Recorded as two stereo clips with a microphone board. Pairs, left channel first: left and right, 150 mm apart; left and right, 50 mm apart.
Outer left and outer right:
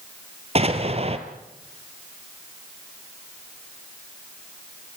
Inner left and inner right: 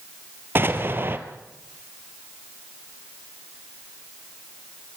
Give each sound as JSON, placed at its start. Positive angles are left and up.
{"t": 0.6, "sound": "an explosion", "side_deg": -45, "distance_m": 2.0}